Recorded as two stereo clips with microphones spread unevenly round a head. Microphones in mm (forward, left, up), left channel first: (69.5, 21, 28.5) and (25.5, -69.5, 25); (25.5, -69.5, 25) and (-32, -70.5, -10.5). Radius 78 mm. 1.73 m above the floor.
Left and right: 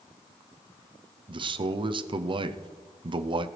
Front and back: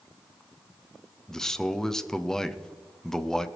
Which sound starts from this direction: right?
A man speaking, at 1.3 s.